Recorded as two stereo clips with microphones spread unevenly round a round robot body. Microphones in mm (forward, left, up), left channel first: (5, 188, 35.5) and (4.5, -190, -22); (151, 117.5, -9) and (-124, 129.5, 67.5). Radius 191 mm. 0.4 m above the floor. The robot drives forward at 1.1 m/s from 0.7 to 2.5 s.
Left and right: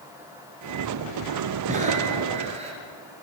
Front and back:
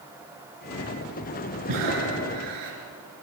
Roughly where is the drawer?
I don't hear a drawer.